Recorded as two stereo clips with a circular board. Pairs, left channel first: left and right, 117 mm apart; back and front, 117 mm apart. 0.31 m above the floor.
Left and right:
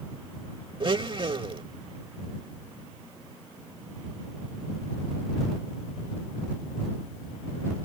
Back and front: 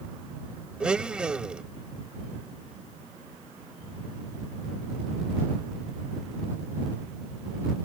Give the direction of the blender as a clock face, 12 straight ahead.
3 o'clock.